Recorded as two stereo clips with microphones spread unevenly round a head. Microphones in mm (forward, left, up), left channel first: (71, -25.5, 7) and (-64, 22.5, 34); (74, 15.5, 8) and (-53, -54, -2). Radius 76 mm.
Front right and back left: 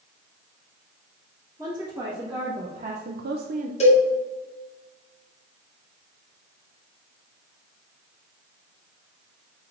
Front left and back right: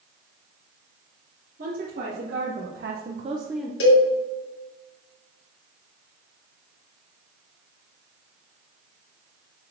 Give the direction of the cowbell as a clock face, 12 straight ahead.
11 o'clock.